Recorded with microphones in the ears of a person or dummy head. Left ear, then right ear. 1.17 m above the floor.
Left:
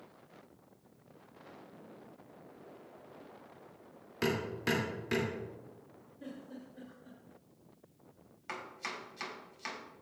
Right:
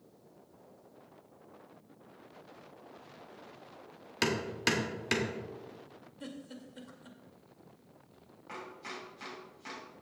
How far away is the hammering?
About 2 m.